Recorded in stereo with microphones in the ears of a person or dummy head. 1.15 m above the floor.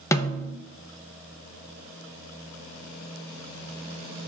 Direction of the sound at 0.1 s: 15° left (ahead or behind).